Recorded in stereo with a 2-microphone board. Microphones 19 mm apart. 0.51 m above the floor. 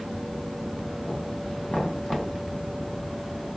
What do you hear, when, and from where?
1.7 s knocking: 50° left (ahead or behind), 4 m